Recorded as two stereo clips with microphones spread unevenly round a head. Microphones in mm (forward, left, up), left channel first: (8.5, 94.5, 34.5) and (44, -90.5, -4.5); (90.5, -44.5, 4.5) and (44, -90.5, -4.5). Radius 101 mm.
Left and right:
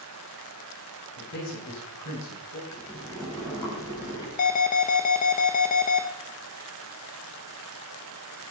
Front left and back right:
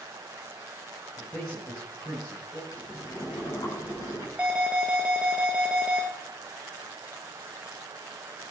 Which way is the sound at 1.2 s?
120° left.